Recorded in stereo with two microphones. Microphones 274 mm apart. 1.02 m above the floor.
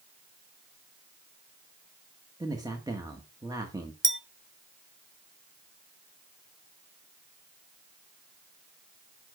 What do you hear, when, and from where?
2.4 s a man speaking: 15° right (ahead or behind), 1.4 m
4.0 s a clink: 45° right (ahead or behind), 0.6 m